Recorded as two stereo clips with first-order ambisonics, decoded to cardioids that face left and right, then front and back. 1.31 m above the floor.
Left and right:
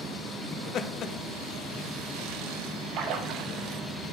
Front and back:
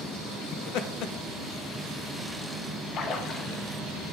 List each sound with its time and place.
0.5 s laughter: 35° left, 0.7 m
2.9 s a splash: 55° right, 0.7 m